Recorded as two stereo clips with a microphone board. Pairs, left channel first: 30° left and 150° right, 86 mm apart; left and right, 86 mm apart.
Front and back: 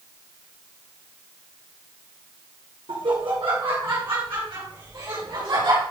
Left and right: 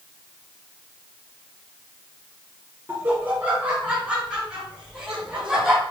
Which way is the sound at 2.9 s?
155° right.